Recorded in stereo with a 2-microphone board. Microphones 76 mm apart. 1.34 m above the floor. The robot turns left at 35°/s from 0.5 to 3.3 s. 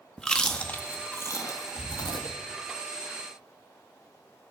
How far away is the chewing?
About 1.4 m.